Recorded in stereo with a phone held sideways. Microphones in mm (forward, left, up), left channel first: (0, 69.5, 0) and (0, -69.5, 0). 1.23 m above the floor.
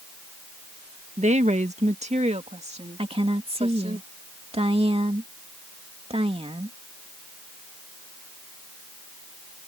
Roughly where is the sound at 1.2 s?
Right.